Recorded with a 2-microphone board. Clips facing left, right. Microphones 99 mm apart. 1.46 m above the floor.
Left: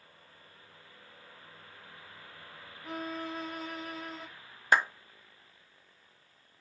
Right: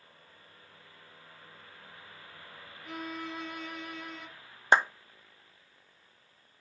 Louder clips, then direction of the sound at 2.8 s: Left 2 dB; 40° left (ahead or behind).